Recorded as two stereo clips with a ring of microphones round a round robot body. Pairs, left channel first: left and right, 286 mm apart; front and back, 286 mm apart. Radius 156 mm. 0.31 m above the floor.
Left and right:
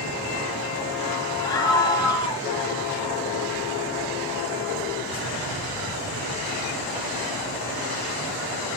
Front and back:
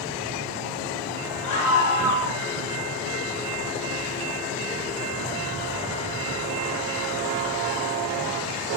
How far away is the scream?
About 3.5 m.